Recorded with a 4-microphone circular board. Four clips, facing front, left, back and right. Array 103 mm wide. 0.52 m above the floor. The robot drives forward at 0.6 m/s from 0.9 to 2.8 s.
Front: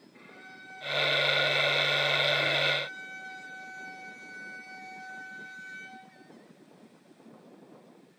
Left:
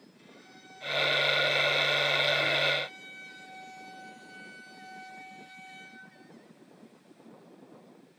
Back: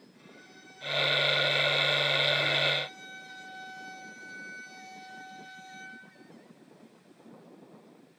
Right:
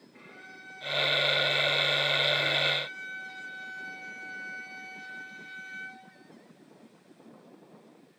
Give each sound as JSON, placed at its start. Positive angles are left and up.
{"t": 0.1, "sound": "a violin", "azimuth_deg": -45, "distance_m": 4.5}